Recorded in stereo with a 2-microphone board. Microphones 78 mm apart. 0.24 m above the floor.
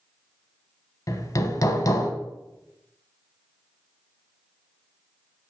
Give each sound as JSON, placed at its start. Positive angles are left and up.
{"t": 1.1, "sound": "hammering", "side_deg": 50, "distance_m": 0.8}